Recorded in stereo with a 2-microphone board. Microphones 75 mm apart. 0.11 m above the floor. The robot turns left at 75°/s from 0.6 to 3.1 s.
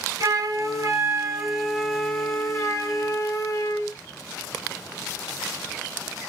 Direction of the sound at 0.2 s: 95° right.